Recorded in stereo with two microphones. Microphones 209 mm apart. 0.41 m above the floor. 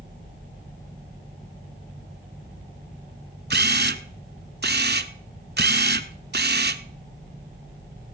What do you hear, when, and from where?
3.5 s a camera shutter: 55° right (ahead or behind), 0.8 m